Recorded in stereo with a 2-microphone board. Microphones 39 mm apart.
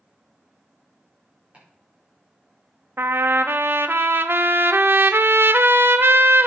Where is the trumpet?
70° right (ahead or behind), 0.6 m.